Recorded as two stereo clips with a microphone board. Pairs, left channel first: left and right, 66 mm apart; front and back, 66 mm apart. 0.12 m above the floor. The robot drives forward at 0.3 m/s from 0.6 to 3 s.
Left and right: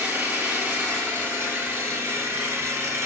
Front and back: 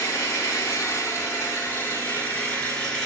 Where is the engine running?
35° right, 1.3 m; by 3.1 s 70° right, 0.9 m.